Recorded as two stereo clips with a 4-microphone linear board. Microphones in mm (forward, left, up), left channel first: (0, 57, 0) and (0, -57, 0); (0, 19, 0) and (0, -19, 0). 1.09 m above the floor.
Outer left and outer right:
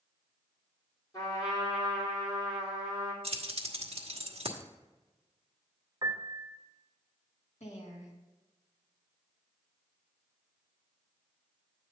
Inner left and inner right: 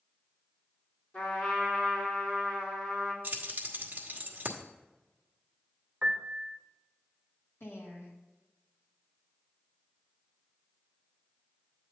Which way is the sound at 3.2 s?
55° right (ahead or behind).